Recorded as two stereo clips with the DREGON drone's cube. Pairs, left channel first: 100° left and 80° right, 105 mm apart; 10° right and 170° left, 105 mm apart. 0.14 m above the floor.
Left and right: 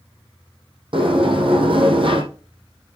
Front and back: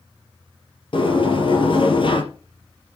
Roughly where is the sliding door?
Ahead right.